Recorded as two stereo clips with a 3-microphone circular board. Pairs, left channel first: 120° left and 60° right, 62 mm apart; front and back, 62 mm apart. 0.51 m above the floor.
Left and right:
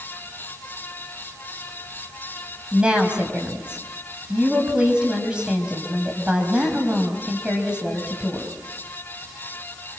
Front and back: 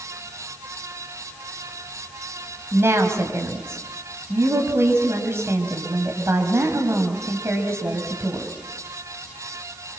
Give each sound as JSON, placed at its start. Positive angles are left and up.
{"t": 2.7, "sound": "a woman speaking", "azimuth_deg": -135, "distance_m": 4.0}